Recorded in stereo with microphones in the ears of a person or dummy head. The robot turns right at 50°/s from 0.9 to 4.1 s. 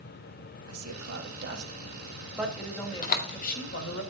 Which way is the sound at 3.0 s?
45° left (ahead or behind).